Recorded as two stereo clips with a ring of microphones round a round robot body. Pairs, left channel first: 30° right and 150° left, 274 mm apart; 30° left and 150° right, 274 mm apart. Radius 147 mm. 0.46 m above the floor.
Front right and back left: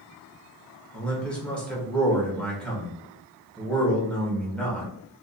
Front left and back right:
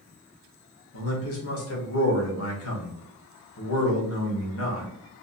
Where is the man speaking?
55° left, 1.3 m.